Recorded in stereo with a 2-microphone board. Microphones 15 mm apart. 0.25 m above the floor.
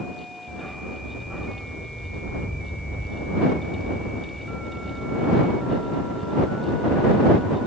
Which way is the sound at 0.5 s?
50° left (ahead or behind).